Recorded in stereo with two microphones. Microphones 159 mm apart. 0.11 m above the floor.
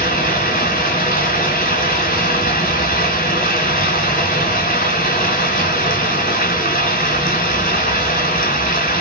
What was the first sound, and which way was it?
Running water, 60° left (ahead or behind).